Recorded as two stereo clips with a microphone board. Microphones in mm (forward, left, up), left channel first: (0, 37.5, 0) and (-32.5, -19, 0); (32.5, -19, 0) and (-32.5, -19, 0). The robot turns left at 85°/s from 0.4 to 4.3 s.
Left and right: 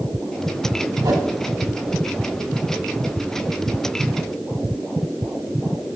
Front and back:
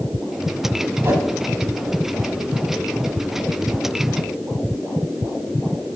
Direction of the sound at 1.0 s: 125° right.